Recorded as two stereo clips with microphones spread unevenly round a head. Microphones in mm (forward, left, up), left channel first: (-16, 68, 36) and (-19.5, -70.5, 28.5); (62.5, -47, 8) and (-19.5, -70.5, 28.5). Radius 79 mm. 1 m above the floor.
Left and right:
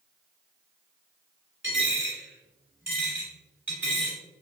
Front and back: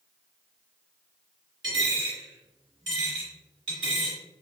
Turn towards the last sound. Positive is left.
turn(degrees=-170)